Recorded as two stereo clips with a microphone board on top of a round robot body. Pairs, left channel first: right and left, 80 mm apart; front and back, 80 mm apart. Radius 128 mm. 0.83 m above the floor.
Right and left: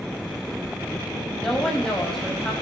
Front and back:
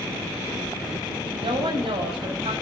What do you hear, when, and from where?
1.4 s a woman speaking: 175° right, 5 m